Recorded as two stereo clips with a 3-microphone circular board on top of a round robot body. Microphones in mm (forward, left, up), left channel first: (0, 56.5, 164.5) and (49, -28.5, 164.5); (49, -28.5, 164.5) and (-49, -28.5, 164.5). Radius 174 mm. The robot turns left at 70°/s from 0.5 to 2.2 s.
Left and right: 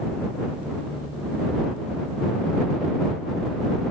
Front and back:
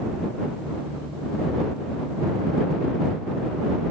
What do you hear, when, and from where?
Only background noise.